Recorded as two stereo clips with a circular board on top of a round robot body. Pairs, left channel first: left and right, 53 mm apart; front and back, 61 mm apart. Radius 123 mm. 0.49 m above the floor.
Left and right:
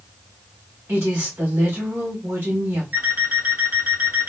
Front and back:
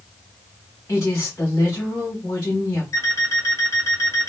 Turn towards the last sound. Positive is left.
turn(degrees=-35)